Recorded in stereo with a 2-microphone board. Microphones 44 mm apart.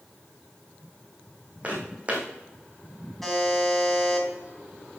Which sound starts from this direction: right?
Footsteps, at 1.6 s.